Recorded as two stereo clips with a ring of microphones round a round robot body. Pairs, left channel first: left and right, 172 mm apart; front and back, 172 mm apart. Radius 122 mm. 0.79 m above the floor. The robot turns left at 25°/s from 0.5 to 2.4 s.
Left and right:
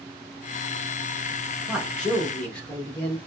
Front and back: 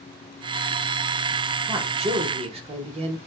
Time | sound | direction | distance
1.7 | a man speaking | 175° right | 0.7 m